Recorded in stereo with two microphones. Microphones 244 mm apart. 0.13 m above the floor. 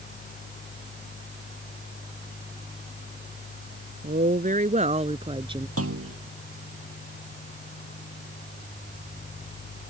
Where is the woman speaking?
35° right (ahead or behind); by 5.7 s 20° right (ahead or behind).